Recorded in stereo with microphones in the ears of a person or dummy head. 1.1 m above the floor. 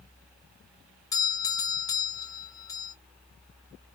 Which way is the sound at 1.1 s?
15° left (ahead or behind).